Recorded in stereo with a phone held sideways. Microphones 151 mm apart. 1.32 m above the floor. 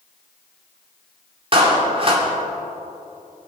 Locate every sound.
1.5 s a clap: 40° right (ahead or behind), 3 m